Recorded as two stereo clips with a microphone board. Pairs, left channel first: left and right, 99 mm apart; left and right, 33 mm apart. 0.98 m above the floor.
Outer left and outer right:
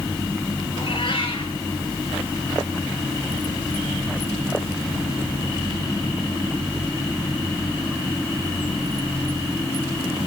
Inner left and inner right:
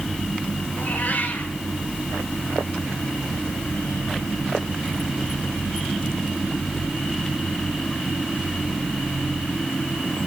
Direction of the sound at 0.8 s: 60° left (ahead or behind).